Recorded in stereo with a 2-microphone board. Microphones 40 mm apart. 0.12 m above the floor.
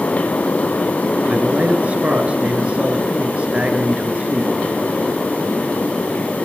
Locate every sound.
1.3 s a man speaking: 30° right (ahead or behind), 2 m